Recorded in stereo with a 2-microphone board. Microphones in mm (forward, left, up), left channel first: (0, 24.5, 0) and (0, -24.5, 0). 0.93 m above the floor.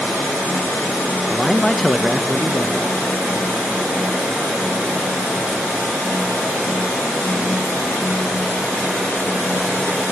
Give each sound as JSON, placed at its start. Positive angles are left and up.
{"t": 1.3, "sound": "a man speaking", "side_deg": 25, "distance_m": 1.0}